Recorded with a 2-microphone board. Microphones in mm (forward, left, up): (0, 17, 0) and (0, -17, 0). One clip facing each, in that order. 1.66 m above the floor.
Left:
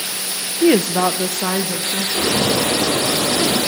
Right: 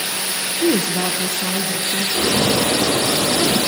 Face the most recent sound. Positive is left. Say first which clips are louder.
# even
turn(degrees=20)  # may be behind; listen again after turning